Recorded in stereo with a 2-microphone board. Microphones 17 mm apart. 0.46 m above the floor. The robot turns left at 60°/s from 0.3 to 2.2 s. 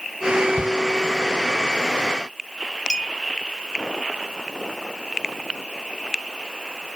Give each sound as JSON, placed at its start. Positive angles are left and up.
{"t": 0.6, "sound": "a shout", "side_deg": -65}
{"t": 2.9, "sound": "a clink", "side_deg": 55}